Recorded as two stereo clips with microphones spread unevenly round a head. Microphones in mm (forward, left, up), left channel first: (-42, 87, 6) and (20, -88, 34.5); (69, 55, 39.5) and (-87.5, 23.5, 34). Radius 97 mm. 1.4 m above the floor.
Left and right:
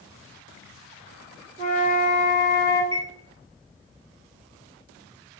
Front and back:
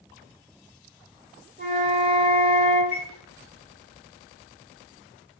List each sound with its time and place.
1.6 s a flute: 120° right, 1.7 m
2.9 s a chime: 90° right, 0.9 m